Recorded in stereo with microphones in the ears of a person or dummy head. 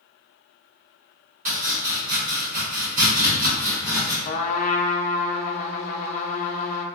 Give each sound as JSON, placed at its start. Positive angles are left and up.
{"t": 1.4, "sound": "chopping", "side_deg": -40, "distance_m": 1.3}
{"t": 4.2, "sound": "a trumpet", "side_deg": 40, "distance_m": 0.6}